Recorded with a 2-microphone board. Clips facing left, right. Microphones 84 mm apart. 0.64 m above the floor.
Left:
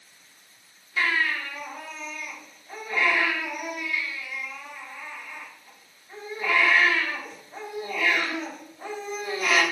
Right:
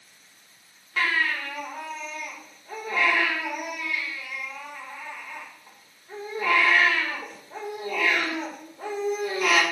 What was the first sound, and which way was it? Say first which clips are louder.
A baby crying: even; 70° right (ahead or behind).